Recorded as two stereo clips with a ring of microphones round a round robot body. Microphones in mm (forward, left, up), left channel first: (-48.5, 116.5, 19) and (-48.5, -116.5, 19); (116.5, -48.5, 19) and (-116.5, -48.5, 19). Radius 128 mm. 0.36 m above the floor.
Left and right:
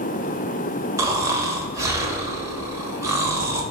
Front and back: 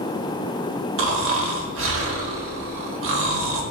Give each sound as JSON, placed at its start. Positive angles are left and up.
{"t": 1.0, "sound": "snoring", "azimuth_deg": -165, "distance_m": 0.7}